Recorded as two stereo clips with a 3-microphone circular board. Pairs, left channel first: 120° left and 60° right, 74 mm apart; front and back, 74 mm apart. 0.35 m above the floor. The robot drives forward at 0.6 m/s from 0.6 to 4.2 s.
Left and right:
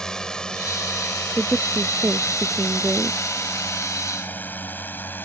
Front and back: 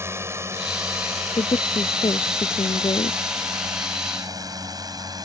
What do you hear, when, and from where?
0.0 s a drone: 165° right; by 5.2 s straight behind
1.4 s a woman speaking: 15° left